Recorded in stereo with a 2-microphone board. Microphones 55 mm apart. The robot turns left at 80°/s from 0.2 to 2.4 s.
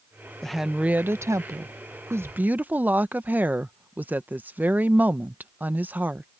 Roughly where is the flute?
No flute in this recording.